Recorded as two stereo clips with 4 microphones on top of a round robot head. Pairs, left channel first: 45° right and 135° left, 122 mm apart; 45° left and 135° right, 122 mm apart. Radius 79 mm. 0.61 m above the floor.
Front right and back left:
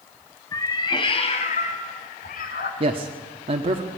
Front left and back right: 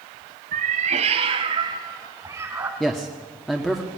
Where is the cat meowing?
115° right, 1.7 m; by 2.7 s 60° right, 2.5 m.